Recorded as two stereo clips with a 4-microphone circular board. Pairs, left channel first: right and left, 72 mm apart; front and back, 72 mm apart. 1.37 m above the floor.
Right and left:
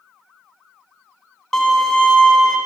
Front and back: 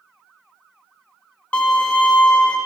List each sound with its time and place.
1.5 s a violin: 20° right, 0.5 m